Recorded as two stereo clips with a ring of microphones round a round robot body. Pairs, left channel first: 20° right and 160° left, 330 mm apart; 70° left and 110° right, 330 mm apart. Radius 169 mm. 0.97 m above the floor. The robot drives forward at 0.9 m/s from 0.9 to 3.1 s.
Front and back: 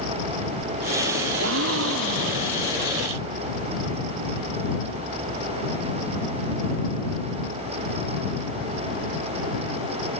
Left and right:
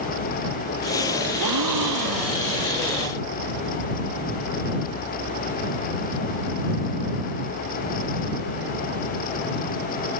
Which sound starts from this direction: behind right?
A gasp, at 1.4 s.